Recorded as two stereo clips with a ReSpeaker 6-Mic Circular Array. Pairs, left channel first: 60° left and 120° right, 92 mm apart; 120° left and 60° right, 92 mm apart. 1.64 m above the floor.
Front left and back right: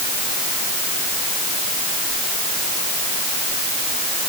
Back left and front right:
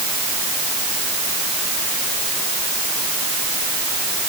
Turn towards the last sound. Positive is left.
No sound to turn to.